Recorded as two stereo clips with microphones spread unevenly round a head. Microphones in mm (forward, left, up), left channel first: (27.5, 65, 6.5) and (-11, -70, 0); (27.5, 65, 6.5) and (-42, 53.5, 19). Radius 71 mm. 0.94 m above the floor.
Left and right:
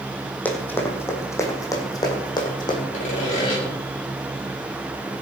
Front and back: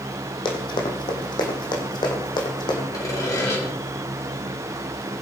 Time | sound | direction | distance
0.5 | running footsteps | straight ahead | 3 m
2.9 | sawing | 40° left | 5 m